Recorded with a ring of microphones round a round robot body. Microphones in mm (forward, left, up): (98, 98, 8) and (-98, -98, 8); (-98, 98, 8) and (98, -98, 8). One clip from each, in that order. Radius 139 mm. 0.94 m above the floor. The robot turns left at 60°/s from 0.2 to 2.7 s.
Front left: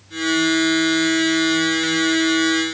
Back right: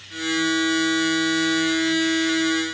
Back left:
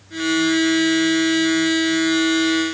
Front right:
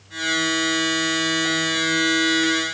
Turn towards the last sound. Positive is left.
No sound to turn to.